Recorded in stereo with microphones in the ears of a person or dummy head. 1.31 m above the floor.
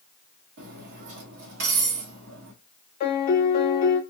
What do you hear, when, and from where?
0.6 s cutlery clinking: 60° right (ahead or behind), 0.9 m
3.0 s a piano: 40° left (ahead or behind), 0.6 m